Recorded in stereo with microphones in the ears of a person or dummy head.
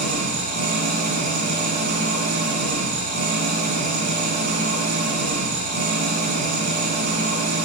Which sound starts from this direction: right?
An engine running, at 0.0 s.